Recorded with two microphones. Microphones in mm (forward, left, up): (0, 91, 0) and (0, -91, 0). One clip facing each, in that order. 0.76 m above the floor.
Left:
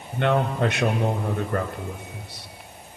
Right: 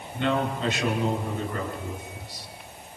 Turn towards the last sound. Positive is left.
turn(degrees=60)  # may be behind; listen again after turning